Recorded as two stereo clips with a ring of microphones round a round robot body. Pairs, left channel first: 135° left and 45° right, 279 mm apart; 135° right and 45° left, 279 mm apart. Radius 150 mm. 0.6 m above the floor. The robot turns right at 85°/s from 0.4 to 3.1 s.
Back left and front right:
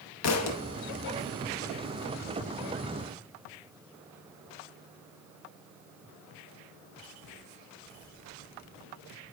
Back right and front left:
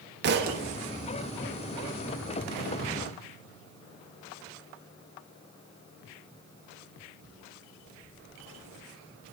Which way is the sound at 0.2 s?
100° left.